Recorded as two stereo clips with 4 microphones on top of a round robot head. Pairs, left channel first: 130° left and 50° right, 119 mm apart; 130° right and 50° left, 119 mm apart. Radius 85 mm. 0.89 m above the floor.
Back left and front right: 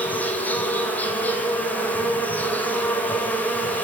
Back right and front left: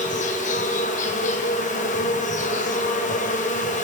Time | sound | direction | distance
0.0 | an insect | 150° right | 2.5 m